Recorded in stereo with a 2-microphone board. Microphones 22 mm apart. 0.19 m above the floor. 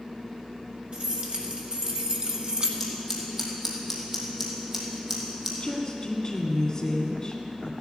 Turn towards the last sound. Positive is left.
turn(degrees=25)  # may be behind; listen again after turning